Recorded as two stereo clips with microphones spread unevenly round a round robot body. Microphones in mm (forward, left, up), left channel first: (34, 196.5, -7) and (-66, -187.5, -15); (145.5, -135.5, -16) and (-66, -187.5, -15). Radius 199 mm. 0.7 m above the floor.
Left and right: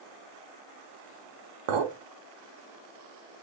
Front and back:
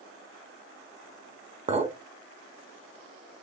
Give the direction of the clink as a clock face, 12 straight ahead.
4 o'clock.